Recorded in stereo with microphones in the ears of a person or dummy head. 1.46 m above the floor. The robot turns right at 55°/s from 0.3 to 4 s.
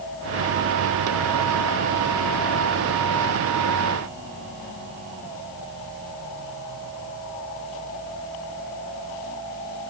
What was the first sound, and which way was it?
Only background noise.